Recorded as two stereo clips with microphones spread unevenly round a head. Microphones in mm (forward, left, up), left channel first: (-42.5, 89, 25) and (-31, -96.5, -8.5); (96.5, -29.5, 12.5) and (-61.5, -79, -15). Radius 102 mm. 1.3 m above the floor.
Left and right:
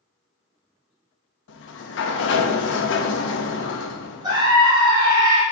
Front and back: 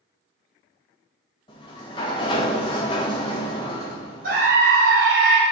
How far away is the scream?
About 2.5 m.